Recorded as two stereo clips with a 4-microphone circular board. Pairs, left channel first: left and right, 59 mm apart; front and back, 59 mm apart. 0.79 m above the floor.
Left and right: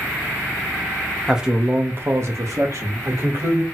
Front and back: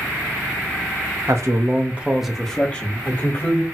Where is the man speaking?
170° right, 0.7 m; by 3.6 s 55° right, 1.3 m.